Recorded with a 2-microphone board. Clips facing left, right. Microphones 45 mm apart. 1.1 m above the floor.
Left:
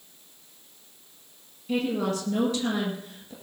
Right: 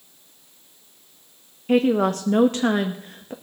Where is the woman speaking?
50° right (ahead or behind), 1.1 m.